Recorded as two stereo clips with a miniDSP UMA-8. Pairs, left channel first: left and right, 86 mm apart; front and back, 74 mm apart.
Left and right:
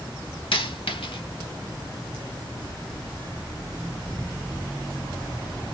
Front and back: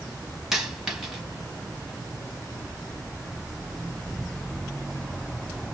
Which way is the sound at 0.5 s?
95° left.